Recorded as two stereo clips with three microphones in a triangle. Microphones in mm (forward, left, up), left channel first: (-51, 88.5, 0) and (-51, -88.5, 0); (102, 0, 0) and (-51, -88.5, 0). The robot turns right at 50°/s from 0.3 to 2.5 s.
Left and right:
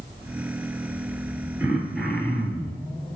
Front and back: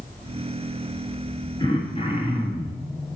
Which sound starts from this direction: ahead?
Throat clearing, at 1.6 s.